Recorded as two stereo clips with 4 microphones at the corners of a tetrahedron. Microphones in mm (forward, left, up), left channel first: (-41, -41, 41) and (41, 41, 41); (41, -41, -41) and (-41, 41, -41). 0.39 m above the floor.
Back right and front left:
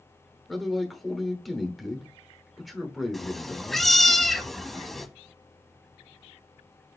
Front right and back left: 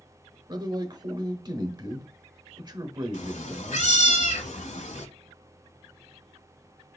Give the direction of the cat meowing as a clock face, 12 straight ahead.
2 o'clock.